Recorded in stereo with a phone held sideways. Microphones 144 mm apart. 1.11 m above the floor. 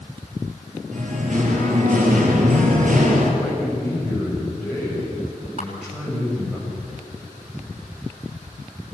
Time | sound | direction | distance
0.9 | singing | 65° right (ahead or behind) | 4.5 m
3.4 | a man speaking | 5° right (ahead or behind) | 6.5 m
5.6 | a camera shutter | 55° left (ahead or behind) | 5 m